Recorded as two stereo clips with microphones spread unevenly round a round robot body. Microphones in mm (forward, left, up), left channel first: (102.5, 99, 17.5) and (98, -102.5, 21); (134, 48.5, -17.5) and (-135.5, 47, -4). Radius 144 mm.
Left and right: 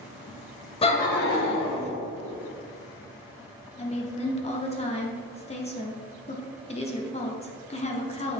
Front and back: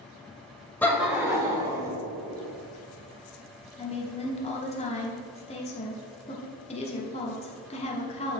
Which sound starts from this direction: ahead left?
A woman speaking, at 3.8 s.